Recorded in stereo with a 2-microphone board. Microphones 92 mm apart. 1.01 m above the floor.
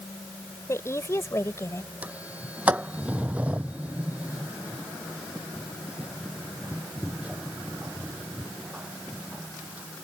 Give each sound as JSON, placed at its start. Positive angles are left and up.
{"t": 0.7, "sound": "a woman speaking", "side_deg": 30}
{"t": 2.0, "sound": "a sliding door", "side_deg": -15}